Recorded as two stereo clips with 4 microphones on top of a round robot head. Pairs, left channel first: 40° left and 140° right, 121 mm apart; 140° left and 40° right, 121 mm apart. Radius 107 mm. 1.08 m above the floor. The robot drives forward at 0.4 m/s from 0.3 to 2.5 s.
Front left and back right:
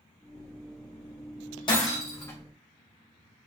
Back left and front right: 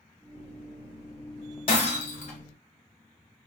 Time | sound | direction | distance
1.7 | breaking glass | 95° left | 1.1 m